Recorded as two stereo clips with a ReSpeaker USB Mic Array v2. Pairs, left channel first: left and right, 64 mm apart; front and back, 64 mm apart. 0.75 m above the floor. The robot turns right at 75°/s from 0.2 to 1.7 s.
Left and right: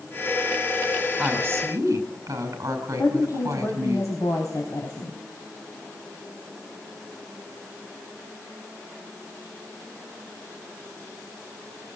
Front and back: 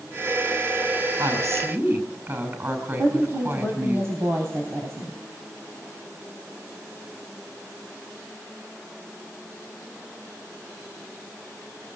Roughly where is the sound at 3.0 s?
Behind left.